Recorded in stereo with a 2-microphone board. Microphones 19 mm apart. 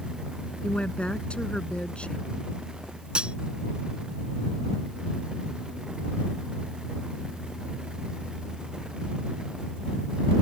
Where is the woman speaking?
75° left (ahead or behind).